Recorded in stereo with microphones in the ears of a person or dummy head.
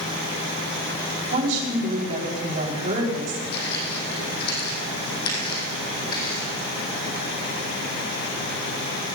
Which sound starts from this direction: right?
A woman speaking, at 1.3 s.